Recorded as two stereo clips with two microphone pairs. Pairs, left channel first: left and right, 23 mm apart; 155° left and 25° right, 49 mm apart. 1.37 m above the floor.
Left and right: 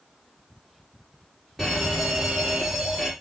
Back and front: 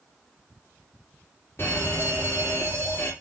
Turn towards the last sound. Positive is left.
turn(degrees=-175)